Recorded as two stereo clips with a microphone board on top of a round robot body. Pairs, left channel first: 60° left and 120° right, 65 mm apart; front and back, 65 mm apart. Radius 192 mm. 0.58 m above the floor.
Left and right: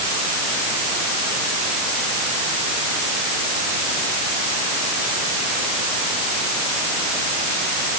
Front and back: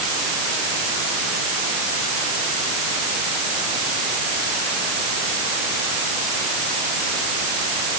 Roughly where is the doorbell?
No doorbell in this recording.